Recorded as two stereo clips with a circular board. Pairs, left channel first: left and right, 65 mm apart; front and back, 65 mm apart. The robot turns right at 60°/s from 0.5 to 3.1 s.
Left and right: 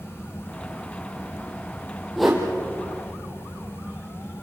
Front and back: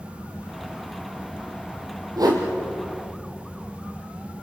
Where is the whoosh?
Straight behind, 4 m; by 2.4 s 165° right, 4 m.